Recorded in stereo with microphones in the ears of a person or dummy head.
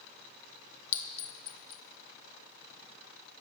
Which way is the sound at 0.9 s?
55° left (ahead or behind).